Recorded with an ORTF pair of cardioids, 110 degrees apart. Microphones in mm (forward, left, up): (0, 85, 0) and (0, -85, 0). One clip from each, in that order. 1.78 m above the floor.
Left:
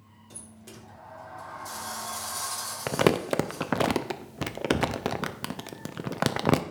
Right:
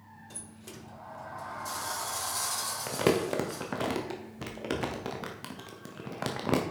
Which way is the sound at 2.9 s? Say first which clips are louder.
Left 4 dB; 40° left.